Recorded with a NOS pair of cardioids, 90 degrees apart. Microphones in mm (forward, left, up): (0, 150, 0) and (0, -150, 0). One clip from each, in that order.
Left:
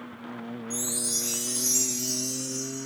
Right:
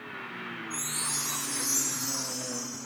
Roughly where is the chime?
Ahead left.